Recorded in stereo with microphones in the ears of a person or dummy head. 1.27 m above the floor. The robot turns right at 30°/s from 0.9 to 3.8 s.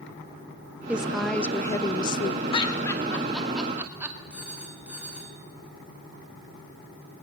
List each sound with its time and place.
0.9 s a woman speaking: 10° right, 0.5 m; by 2.4 s 40° left, 0.5 m
2.5 s laughter: 30° left (ahead or behind), 2.5 m; by 4.2 s 10° right (ahead or behind), 2.5 m
4.3 s a phone ringing: 5° right (ahead or behind), 1.8 m